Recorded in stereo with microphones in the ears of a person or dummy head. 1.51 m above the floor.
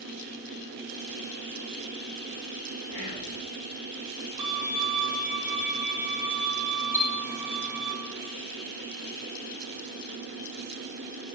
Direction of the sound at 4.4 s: 25° right (ahead or behind).